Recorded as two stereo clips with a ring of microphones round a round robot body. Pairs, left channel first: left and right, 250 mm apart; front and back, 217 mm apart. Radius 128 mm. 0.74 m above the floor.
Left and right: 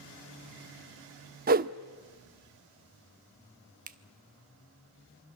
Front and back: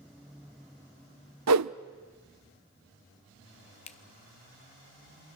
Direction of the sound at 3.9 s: 50° right.